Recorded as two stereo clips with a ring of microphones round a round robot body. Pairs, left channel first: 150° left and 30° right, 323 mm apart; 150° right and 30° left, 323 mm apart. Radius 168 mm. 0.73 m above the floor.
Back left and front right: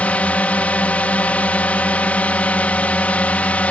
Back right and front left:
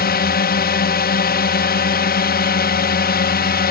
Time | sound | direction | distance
0.0 | a drone | 130° right | ?